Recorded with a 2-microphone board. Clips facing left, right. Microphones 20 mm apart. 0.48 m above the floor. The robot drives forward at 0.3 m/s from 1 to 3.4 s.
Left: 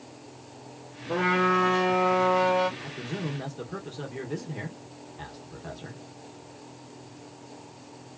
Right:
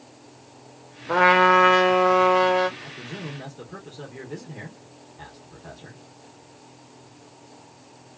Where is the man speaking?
20° left (ahead or behind), 0.7 m.